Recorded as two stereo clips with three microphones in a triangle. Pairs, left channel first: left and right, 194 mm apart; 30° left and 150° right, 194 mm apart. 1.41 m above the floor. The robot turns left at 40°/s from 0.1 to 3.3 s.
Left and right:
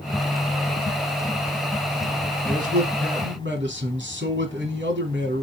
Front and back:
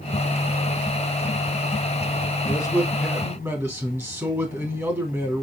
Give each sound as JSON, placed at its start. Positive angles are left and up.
{"t": 2.5, "sound": "a man speaking", "azimuth_deg": -40, "distance_m": 3.0}